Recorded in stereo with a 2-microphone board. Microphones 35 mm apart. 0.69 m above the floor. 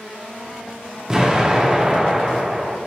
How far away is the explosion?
About 0.6 m.